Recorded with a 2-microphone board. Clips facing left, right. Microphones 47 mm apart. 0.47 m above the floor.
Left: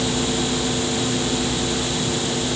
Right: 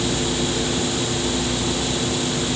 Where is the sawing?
I don't hear sawing.